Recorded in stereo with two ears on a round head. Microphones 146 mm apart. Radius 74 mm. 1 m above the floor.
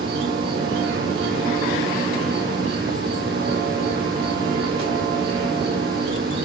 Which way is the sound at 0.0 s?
60° right (ahead or behind).